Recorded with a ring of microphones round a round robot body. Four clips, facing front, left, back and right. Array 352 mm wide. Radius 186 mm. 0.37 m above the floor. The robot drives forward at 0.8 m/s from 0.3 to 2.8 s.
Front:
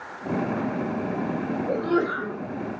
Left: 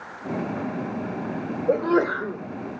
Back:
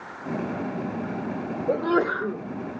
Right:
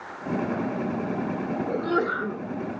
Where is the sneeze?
120° left, 1.9 m; by 2.4 s 135° left, 2 m.